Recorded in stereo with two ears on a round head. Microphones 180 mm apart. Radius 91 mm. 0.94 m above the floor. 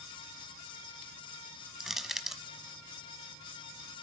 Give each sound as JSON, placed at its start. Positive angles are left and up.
{"t": 1.8, "sound": "crushing", "side_deg": -5, "distance_m": 0.9}